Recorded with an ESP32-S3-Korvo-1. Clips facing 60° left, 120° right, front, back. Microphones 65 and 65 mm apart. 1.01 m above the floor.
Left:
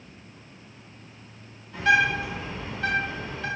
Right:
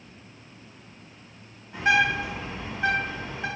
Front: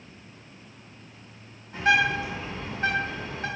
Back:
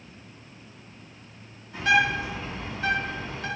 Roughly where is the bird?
Ahead right.